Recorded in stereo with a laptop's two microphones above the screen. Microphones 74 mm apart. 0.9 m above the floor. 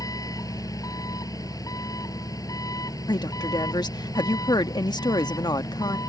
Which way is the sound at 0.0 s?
50° left (ahead or behind).